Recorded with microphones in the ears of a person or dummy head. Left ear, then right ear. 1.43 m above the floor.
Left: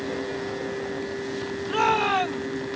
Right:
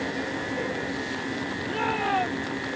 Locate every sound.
1.7 s a shout: 40° left (ahead or behind)